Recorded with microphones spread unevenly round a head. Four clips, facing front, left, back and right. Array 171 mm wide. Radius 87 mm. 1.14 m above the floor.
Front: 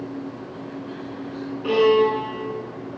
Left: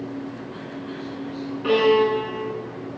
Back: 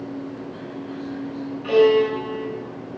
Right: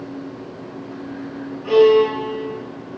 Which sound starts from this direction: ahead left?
A violin, at 1.6 s.